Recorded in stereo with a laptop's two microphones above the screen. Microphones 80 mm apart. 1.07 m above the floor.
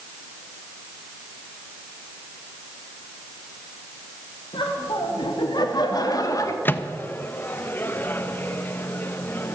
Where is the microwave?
25° left (ahead or behind), 0.5 m.